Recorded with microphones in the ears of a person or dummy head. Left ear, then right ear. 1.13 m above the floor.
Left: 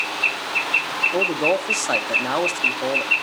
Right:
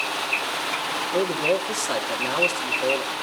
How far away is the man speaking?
About 1.7 m.